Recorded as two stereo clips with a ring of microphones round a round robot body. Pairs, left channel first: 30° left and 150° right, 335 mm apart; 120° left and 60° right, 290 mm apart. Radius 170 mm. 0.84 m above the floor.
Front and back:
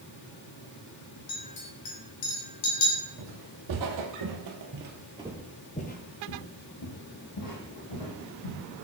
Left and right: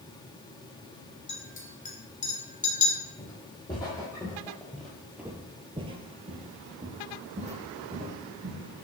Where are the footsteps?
165° right, 1.9 m; by 8.6 s 5° left, 2.5 m.